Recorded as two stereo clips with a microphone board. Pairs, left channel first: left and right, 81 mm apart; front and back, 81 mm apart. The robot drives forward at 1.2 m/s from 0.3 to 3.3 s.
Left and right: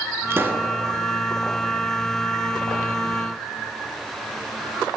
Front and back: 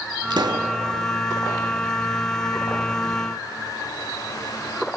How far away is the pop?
About 1.6 m.